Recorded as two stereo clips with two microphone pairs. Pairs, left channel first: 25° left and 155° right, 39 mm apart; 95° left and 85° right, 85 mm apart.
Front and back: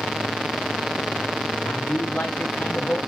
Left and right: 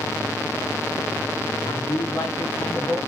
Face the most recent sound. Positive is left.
turn(degrees=55)